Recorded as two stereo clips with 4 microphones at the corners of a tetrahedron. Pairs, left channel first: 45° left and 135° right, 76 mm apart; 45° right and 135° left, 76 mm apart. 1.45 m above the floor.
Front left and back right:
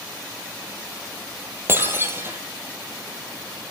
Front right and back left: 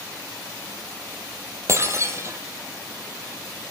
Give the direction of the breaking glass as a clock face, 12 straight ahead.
6 o'clock.